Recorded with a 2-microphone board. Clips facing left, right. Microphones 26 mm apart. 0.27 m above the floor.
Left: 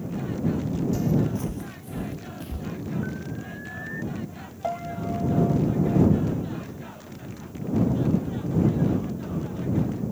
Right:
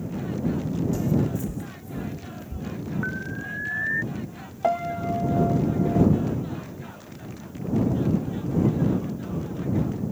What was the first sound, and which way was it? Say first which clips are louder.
Footsteps: even; 25° left (ahead or behind).